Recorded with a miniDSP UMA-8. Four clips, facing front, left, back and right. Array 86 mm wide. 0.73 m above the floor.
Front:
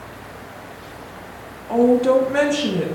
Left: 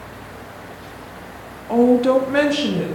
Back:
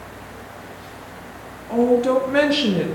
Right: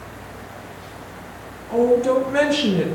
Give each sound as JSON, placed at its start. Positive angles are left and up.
{"t": 1.7, "sound": "a woman speaking", "azimuth_deg": 75, "distance_m": 1.3}